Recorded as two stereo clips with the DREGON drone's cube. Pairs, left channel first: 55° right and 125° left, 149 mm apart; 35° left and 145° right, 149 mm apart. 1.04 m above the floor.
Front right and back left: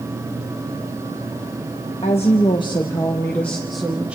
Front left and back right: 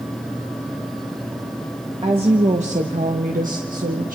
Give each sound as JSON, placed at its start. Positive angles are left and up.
{"t": 2.0, "sound": "a woman speaking", "azimuth_deg": -100, "distance_m": 1.7}